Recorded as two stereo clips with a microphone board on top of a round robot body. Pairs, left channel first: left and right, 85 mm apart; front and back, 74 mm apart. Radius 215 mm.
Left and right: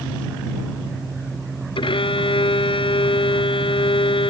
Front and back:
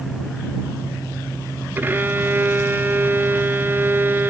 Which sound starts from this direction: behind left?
A violin, at 1.8 s.